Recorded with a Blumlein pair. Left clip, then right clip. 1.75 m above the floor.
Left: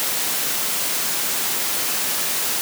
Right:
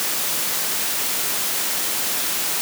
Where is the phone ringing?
I don't hear a phone ringing.